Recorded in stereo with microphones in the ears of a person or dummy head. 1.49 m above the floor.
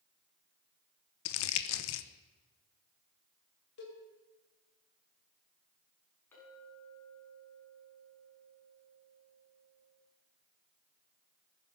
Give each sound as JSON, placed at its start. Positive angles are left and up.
{"t": 1.2, "sound": "crumpling", "side_deg": 70, "distance_m": 0.9}
{"t": 3.8, "sound": "a cowbell", "side_deg": 60, "distance_m": 3.5}
{"t": 6.3, "sound": "a clink", "side_deg": 15, "distance_m": 8.0}